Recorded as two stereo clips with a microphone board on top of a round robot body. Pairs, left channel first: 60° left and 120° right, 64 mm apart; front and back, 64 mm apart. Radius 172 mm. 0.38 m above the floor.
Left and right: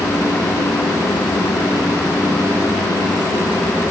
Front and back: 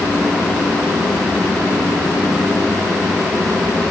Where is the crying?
I don't hear crying.